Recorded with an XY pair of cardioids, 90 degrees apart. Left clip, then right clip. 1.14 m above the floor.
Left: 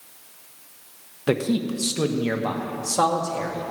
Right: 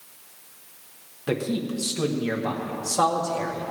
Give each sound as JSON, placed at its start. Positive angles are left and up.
{"t": 1.3, "sound": "a man speaking", "azimuth_deg": 40, "distance_m": 1.2}